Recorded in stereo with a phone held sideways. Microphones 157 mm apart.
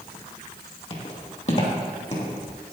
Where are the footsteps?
45° left (ahead or behind), 2.5 m.